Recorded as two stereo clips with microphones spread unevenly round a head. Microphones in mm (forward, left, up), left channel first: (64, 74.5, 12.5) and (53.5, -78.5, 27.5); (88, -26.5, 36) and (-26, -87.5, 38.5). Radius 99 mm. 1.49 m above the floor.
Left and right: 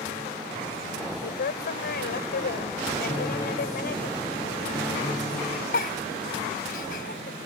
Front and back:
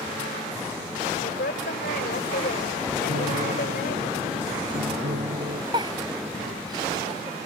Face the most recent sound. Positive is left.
turn(degrees=140)